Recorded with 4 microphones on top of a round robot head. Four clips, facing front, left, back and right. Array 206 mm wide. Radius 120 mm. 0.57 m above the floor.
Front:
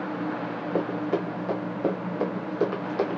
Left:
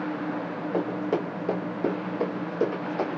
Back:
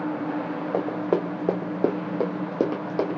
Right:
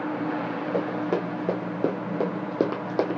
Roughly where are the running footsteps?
Behind.